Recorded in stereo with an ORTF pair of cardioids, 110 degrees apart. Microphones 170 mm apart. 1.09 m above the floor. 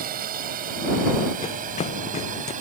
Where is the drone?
60° right; by 2.6 s 50° right.